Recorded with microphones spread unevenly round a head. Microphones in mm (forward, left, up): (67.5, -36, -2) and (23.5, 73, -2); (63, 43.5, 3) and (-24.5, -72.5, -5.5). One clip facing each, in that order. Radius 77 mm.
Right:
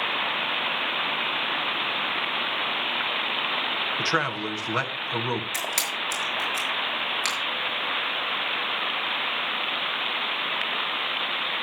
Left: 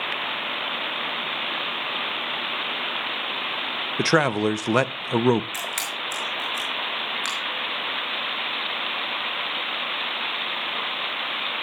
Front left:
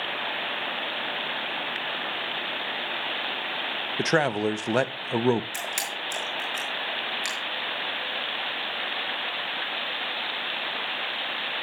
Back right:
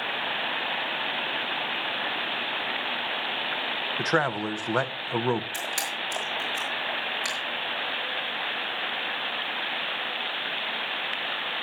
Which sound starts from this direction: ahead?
A camera shutter, at 5.5 s.